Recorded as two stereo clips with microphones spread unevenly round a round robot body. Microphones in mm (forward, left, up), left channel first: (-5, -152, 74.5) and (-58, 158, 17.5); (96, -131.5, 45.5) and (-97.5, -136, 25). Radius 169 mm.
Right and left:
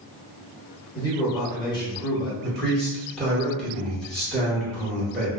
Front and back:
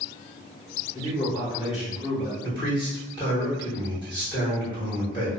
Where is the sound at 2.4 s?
35° left, 1.4 m.